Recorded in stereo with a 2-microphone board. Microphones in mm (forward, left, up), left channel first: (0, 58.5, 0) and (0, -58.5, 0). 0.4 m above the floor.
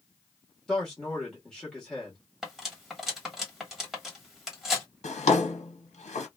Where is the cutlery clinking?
5° right (ahead or behind), 1.3 m.